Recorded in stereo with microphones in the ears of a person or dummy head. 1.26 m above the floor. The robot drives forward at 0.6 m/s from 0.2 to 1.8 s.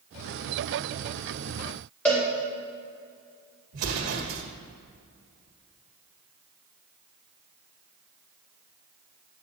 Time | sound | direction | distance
2.0 | a cowbell | 10° left (ahead or behind) | 4.5 m
3.7 | an explosion | 65° right (ahead or behind) | 1.7 m